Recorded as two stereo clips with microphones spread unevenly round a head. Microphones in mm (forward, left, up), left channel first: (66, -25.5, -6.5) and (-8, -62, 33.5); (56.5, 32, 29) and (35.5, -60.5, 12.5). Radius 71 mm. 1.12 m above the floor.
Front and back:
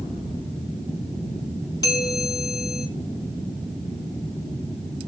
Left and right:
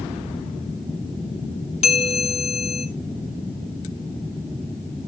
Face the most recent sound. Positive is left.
turn(degrees=70)